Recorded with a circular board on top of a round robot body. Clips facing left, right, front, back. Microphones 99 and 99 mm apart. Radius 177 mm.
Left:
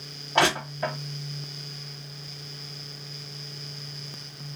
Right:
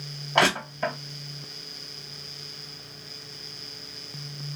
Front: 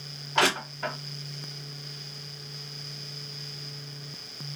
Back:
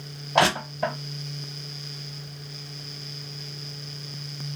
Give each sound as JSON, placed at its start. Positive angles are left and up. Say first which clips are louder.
{"t": 0.3, "sound": "crushing", "louder": "even, back 5 dB", "azimuth_deg": 180, "distance_m": 1.0}